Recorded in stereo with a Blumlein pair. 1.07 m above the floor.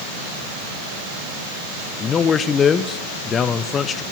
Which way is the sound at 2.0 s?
20° left.